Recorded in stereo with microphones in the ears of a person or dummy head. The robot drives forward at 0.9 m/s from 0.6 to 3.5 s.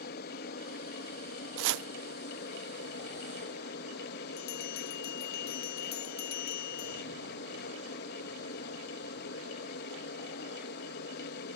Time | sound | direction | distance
0.0 | an aircraft | 50° left (ahead or behind) | ?
1.6 | chopping | 75° right (ahead or behind) | ?
4.4 | a bell | 65° left (ahead or behind) | ?